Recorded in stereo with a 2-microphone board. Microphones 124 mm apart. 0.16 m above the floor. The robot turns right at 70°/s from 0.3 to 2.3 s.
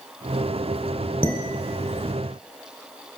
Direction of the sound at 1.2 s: 20° right (ahead or behind).